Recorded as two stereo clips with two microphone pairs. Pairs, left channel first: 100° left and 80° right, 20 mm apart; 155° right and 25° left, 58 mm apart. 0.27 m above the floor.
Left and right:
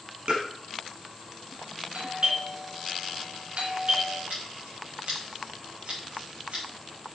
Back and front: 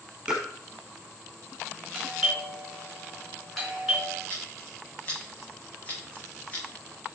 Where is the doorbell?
70° right, 4.5 m.